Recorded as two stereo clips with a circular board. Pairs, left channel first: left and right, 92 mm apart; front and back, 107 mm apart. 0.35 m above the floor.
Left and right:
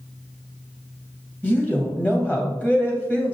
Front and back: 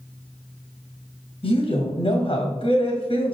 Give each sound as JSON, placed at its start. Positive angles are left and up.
{"t": 1.4, "sound": "a woman speaking", "azimuth_deg": 20, "distance_m": 2.0}